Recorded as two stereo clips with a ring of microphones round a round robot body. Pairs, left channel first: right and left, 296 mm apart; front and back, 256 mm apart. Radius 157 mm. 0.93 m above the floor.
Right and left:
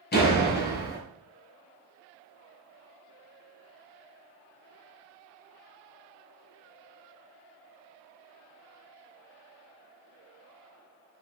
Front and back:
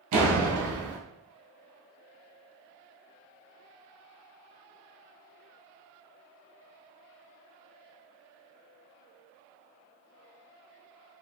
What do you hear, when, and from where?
0.1 s a door slam: 150° right, 0.7 m